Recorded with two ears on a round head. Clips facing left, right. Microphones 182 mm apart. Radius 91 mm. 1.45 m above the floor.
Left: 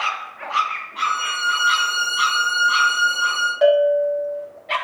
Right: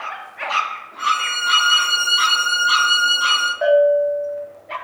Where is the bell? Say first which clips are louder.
Right 1 dB; 45° left (ahead or behind), 0.8 m.